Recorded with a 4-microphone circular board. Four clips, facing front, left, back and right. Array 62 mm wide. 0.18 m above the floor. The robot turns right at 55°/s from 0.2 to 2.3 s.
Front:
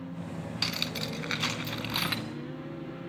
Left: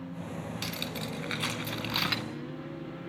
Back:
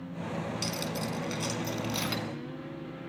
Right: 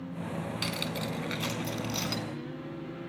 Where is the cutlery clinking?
25° right, 1.0 m; by 2.2 s 65° left, 1.0 m.